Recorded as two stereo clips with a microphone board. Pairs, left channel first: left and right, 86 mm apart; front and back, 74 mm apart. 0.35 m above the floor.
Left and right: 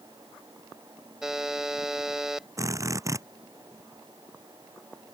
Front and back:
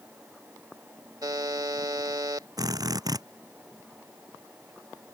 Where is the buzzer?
170° right.